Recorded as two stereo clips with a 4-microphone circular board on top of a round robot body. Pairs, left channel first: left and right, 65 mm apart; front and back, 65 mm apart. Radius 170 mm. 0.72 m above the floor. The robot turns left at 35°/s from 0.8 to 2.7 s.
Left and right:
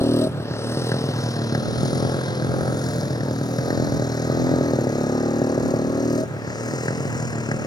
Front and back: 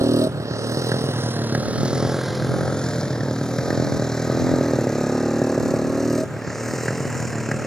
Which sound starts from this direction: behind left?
A motorcycle, at 0.0 s.